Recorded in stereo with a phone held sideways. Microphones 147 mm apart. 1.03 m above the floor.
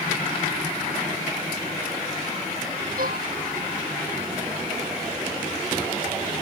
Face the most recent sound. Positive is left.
turn(degrees=-70)  # may be behind; listen again after turning